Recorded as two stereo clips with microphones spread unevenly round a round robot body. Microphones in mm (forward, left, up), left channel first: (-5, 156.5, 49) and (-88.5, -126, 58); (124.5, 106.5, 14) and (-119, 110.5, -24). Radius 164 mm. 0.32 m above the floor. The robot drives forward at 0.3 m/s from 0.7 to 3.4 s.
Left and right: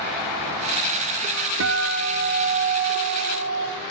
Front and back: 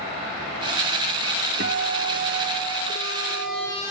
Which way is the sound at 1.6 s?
140° right.